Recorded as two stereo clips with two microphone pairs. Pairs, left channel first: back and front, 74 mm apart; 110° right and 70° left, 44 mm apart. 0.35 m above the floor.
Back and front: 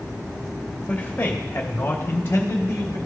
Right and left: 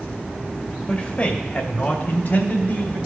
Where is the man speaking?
135° right, 1.2 m; by 3.0 s 140° right, 2 m.